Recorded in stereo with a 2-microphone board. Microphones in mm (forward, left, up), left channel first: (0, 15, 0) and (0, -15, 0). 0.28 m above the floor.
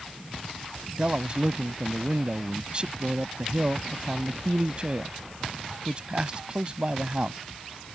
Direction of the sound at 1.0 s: 40° right (ahead or behind).